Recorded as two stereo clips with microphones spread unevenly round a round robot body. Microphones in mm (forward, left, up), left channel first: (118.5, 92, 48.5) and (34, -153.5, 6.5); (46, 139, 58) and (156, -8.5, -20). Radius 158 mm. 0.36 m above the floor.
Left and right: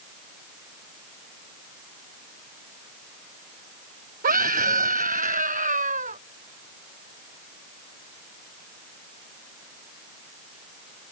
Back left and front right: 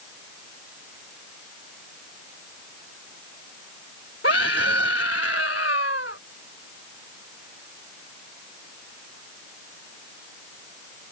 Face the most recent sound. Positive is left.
turn(degrees=-175)